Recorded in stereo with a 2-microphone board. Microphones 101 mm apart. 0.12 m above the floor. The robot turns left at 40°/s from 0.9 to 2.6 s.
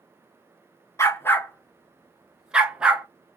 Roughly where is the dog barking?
Left.